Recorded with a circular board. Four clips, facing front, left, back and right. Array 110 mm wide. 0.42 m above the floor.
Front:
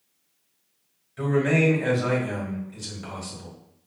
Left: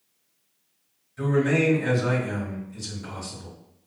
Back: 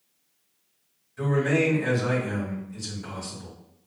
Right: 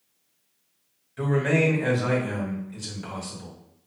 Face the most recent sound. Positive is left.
turn(degrees=-55)